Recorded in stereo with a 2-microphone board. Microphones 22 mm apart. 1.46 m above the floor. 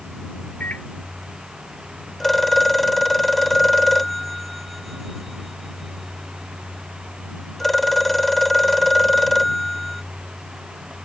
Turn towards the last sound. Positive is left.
turn(degrees=10)  # may be behind; listen again after turning